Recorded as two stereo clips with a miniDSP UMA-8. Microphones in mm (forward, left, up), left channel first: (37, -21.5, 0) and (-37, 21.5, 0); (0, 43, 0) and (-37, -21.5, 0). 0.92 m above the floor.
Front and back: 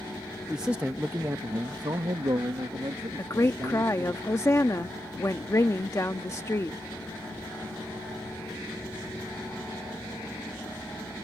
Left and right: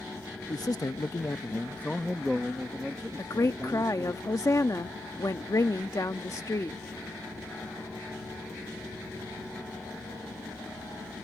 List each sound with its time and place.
0.5 s a man speaking: 65° left; by 4.2 s 175° left
3.2 s a woman speaking: 20° left